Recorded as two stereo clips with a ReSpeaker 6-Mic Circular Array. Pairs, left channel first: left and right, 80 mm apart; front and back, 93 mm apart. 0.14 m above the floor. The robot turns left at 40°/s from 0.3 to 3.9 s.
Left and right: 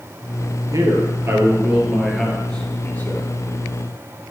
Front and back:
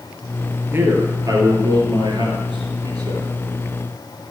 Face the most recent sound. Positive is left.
turn(degrees=115)